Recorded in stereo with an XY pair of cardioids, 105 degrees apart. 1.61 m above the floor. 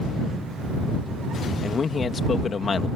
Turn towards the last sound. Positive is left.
turn(degrees=40)